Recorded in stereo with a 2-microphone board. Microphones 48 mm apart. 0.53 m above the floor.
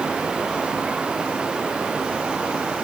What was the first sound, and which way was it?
Only background noise.